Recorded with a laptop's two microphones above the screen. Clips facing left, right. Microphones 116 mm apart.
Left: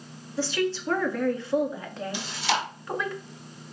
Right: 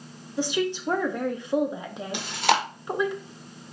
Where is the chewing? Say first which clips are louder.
Right 6 dB; 55° right (ahead or behind), 1.0 m.